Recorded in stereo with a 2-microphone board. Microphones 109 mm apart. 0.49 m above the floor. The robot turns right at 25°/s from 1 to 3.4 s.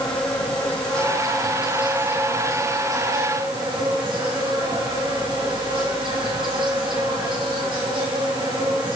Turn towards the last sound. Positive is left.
turn(degrees=-130)